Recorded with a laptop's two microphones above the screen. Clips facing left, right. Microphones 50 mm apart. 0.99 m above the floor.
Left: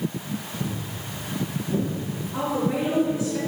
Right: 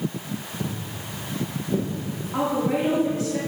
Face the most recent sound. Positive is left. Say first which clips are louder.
# right 2 dB
turn(degrees=-60)  # may be behind; listen again after turning